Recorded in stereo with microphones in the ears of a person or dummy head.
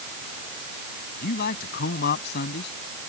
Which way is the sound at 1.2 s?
55° left (ahead or behind).